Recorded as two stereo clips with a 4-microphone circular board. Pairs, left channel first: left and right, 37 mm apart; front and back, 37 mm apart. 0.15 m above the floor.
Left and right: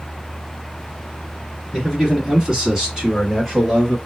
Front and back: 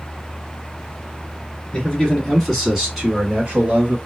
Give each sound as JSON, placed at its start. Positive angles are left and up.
{"t": 1.7, "sound": "a man speaking", "azimuth_deg": -35, "distance_m": 1.6}